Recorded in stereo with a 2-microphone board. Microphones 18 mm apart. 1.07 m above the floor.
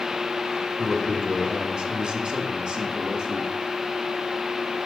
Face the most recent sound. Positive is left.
turn(degrees=-55)  # may be behind; listen again after turning